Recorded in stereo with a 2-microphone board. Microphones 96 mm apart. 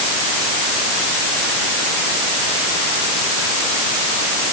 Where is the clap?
No clap in this recording.